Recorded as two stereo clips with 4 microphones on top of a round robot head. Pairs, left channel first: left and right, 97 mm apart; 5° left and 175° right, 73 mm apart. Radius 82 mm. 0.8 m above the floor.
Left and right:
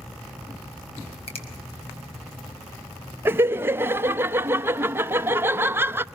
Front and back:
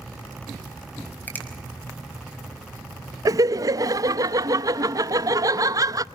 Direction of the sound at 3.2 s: 155° right.